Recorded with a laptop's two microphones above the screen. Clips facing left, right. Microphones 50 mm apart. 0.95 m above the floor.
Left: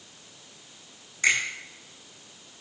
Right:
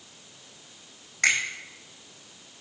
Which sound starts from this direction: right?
A finger snap, at 1.2 s.